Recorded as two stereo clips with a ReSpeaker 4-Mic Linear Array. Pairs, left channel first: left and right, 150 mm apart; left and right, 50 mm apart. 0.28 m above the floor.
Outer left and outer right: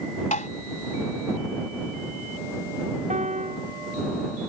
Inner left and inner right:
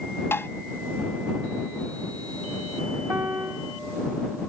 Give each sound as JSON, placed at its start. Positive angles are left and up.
{"t": 0.3, "sound": "tapping", "side_deg": 55}
{"t": 3.1, "sound": "a piano", "side_deg": -50}